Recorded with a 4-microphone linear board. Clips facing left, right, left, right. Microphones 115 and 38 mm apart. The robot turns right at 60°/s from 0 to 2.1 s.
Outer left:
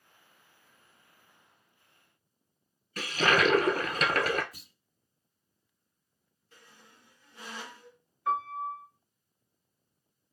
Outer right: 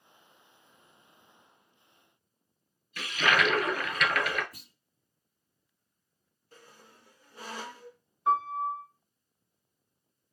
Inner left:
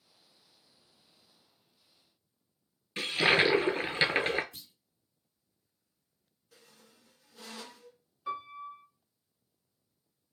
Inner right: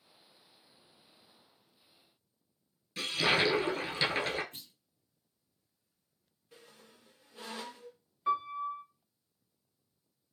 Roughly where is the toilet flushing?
Left.